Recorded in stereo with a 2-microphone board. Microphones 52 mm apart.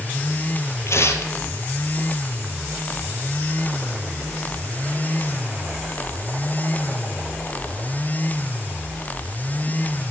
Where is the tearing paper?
60° left (ahead or behind), 1.5 m.